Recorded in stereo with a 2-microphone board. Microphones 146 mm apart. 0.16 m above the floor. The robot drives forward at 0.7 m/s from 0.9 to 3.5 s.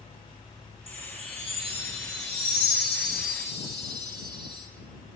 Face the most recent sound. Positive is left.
turn(degrees=-30)  # may be behind; listen again after turning